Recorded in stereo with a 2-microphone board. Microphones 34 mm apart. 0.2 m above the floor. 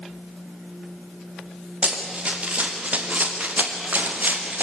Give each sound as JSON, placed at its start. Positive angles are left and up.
{"t": 1.8, "sound": "running footsteps", "side_deg": -35, "distance_m": 5.5}